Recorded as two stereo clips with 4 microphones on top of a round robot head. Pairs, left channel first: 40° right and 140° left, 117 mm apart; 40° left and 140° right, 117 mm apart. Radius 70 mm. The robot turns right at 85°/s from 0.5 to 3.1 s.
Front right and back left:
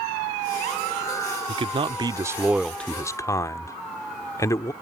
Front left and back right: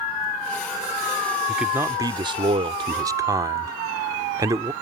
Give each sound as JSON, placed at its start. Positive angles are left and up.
{"t": 1.5, "sound": "a man speaking", "azimuth_deg": 130}